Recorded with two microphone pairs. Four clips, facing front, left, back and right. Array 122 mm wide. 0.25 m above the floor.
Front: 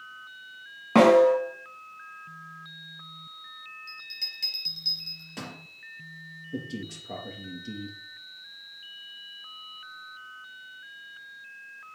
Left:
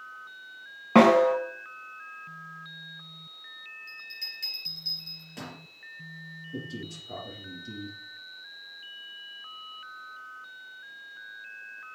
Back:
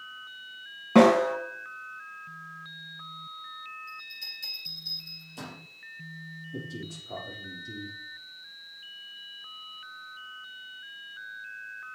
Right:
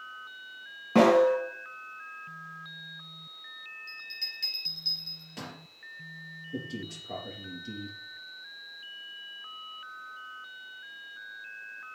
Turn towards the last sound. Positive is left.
turn(degrees=-15)